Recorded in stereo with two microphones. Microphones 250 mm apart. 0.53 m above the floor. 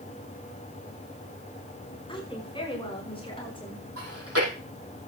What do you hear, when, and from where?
2.1 s a woman speaking: 20° left (ahead or behind), 4.5 m
4.0 s chewing: 70° right (ahead or behind), 5 m